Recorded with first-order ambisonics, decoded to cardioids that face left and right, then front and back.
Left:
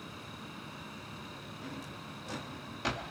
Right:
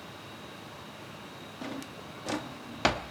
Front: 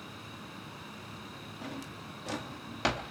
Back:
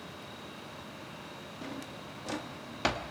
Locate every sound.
1.6 s a drawer: 90° right, 1.0 m